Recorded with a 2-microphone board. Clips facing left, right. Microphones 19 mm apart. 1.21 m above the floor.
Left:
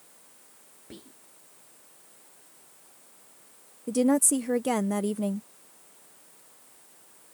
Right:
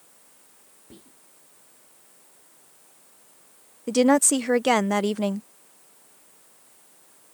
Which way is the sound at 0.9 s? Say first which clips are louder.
Left 3 dB; 30° left (ahead or behind).